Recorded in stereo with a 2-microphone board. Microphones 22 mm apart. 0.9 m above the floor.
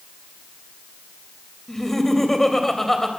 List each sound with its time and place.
1.7 s laughter: 15° left (ahead or behind), 3.5 m